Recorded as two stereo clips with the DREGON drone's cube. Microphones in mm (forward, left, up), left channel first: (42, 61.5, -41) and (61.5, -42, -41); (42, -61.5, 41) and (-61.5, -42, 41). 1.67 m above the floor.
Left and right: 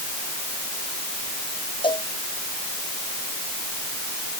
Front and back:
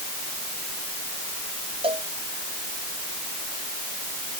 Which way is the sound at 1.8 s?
135° left.